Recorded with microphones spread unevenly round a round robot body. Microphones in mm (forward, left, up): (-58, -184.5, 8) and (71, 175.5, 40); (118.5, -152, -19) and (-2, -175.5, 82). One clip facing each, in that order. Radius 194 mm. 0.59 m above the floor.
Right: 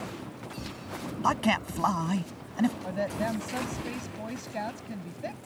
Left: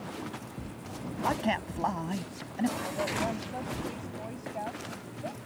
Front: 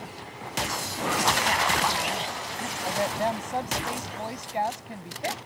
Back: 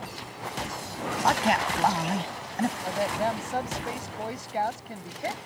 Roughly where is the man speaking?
Behind.